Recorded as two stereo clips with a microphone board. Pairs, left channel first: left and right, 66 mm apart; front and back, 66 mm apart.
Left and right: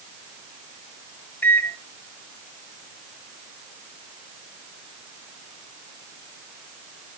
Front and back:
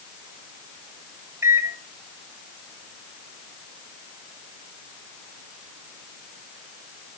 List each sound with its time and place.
1.4 s a microwave: 145° left, 0.7 m